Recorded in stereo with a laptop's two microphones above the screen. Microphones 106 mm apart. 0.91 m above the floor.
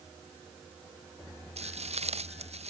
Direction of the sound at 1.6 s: 85° right.